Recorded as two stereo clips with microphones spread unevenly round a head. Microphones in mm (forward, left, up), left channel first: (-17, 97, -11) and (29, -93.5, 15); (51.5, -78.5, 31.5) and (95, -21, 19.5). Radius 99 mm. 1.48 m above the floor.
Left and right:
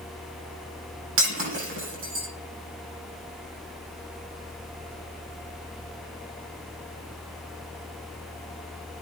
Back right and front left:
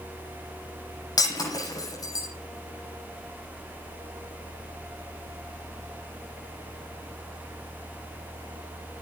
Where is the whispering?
I don't hear whispering.